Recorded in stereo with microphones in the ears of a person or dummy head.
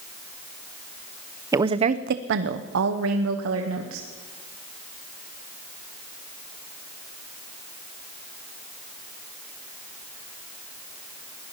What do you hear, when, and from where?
1.5 s a woman speaking: 15° right (ahead or behind), 0.7 m; by 4.1 s 80° right, 1.7 m